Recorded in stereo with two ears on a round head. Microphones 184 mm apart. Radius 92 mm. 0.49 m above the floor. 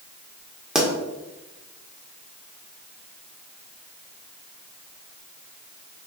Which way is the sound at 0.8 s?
5° right (ahead or behind).